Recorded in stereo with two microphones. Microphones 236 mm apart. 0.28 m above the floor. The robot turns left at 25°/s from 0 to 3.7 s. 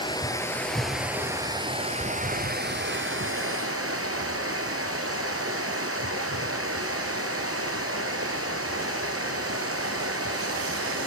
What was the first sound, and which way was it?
Running water, 20° left.